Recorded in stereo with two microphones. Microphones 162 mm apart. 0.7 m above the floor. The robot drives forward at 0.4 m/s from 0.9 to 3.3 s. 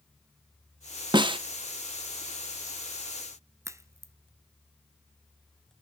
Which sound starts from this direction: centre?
A crack, at 3.6 s.